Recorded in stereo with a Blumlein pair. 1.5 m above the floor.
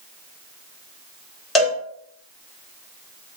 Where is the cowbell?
15° left, 1.0 m.